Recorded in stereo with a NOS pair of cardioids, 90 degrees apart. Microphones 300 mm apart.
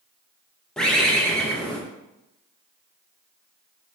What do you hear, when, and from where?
0.8 s a bird: straight ahead, 0.8 m